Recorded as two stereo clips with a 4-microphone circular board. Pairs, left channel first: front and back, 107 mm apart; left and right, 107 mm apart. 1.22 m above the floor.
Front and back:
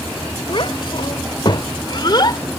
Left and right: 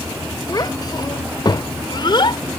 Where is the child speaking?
40° left; by 2.4 s 50° left.